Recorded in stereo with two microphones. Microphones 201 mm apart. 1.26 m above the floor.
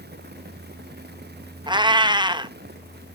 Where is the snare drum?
I don't hear a snare drum.